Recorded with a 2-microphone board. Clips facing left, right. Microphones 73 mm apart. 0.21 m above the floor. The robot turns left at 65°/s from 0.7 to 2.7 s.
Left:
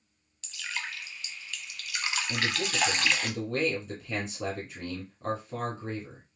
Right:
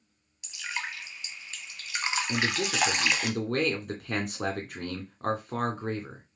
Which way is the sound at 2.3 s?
50° right (ahead or behind).